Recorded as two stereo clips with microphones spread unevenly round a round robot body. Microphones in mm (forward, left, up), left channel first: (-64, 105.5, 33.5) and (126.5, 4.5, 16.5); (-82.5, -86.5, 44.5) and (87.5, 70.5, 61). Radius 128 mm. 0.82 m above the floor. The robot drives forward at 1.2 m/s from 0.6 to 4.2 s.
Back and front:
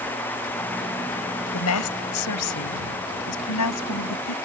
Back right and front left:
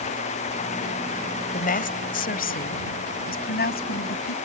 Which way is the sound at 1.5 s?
165° left.